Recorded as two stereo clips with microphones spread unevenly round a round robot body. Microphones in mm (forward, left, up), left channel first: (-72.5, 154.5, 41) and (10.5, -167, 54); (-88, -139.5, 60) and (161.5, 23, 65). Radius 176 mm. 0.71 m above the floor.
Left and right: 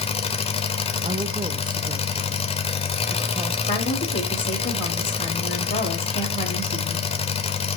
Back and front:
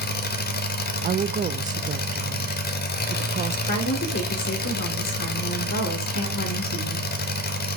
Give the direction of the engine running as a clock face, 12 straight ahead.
6 o'clock.